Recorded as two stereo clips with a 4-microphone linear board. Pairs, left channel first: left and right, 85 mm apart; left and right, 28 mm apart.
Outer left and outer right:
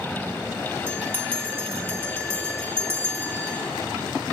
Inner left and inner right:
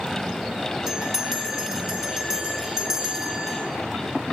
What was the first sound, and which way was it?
A bell, 25° right (ahead or behind).